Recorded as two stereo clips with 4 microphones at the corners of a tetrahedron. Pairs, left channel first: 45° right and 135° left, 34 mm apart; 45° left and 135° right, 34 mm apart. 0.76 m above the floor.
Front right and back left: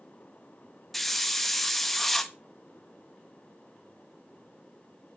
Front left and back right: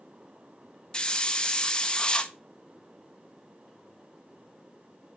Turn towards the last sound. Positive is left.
turn(degrees=30)